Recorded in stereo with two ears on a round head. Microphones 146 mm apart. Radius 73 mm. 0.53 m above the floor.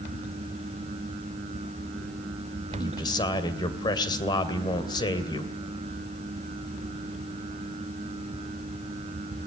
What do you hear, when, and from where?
2.7 s a man speaking: 25° left (ahead or behind), 2.5 m